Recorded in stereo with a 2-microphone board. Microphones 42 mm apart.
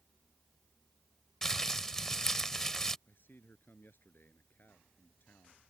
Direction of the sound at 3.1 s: 55° left (ahead or behind).